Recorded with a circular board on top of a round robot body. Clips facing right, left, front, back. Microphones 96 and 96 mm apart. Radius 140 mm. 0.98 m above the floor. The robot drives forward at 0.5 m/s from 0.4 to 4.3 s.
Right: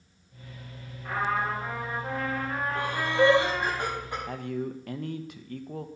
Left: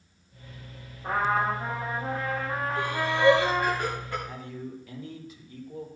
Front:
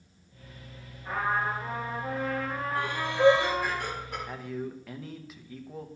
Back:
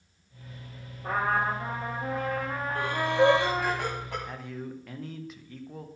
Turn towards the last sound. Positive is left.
turn(degrees=-90)